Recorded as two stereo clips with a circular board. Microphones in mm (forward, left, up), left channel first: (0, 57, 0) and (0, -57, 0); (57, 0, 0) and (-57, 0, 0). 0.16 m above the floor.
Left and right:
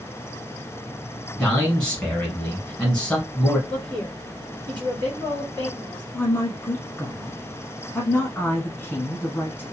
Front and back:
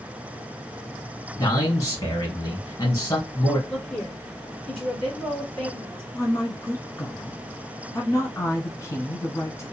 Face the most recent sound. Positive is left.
turn(degrees=35)